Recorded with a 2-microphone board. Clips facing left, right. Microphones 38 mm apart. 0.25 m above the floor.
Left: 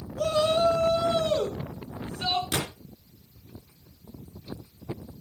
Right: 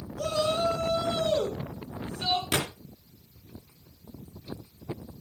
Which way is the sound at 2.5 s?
35° right (ahead or behind).